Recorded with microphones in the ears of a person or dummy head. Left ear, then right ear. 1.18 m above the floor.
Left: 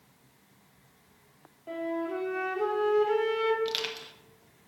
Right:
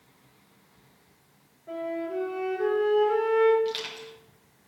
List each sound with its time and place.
1.7 s a flute: 85° left, 3 m
3.6 s crushing: 20° left (ahead or behind), 1.5 m